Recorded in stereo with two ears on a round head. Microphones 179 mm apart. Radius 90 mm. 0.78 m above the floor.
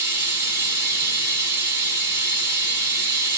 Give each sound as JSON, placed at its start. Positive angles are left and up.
{"t": 0.0, "sound": "running water", "side_deg": -10, "distance_m": 3.5}